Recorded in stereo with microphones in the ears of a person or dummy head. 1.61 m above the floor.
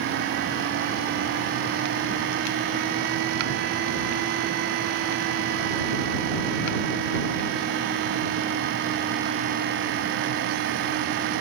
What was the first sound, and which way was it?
Only background noise.